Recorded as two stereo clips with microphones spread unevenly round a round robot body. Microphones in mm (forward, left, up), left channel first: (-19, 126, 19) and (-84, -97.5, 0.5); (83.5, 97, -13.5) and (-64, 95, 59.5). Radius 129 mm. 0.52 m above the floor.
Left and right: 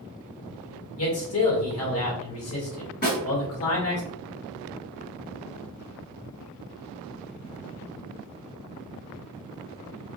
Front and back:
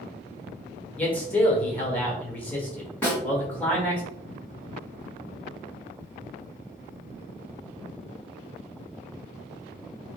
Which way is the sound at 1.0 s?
65° left.